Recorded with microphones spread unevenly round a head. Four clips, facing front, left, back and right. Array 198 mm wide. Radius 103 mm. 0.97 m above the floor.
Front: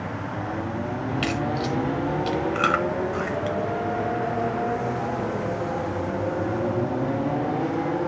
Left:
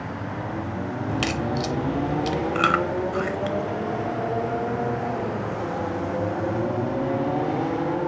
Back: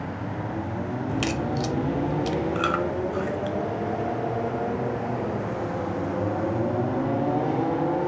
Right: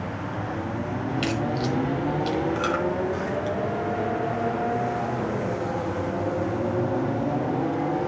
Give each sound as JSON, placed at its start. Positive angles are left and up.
{"t": 1.1, "sound": "a crack", "azimuth_deg": 135, "distance_m": 0.7}
{"t": 2.5, "sound": "chewing", "azimuth_deg": 60, "distance_m": 1.1}